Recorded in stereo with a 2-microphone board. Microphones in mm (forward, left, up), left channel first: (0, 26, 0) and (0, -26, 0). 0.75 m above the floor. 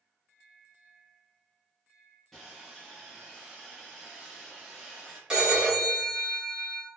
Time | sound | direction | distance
2.3 | sawing | 5° left (ahead or behind) | 1.3 m
5.3 | a phone ringing | 15° right (ahead or behind) | 1.6 m